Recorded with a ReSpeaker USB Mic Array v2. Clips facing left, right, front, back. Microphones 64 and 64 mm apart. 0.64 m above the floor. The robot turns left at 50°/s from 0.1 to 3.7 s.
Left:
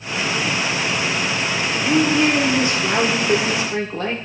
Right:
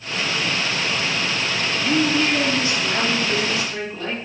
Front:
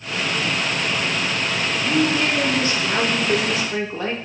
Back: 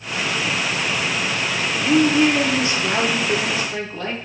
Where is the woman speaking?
160° left, 1.5 m; by 4.2 s 65° left, 1.5 m.